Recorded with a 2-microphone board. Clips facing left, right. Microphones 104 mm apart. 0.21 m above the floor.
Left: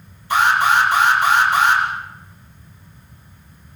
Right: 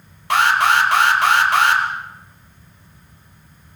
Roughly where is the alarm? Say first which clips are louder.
Even; right.